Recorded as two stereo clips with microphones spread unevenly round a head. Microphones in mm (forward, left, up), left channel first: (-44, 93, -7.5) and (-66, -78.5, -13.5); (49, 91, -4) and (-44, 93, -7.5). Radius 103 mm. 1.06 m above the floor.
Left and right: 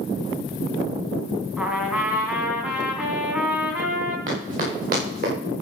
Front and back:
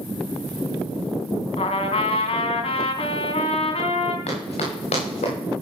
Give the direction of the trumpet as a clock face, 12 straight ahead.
1 o'clock.